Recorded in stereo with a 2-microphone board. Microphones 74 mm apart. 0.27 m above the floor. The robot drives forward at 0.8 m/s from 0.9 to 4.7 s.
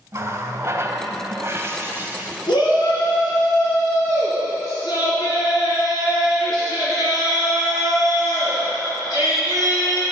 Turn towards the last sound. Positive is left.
turn(degrees=60)  # may be behind; listen again after turning